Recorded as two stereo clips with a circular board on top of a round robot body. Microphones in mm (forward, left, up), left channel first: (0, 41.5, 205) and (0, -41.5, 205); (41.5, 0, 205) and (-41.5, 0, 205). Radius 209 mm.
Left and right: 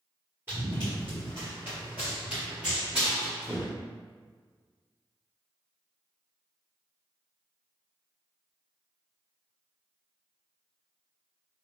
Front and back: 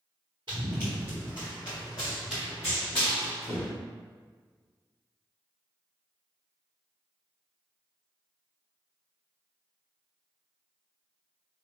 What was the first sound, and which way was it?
Running footsteps, 155° right.